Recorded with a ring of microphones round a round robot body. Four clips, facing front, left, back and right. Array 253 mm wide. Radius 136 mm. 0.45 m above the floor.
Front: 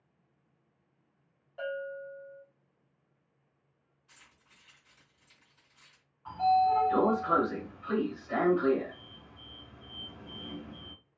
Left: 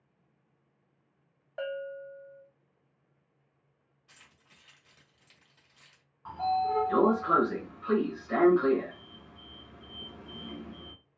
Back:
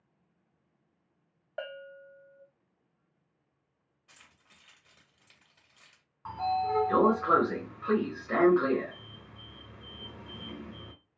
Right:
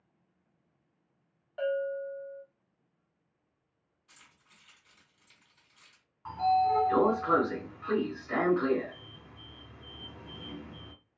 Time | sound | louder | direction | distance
1.6 | a bell | right 5 dB, front 5 dB | 165° left | 0.7 m
4.1 | keys jangling | even, back 2 dB | 150° left | 1.5 m
6.2 | a sliding door | right 3 dB, front 5 dB | 175° right | 1.1 m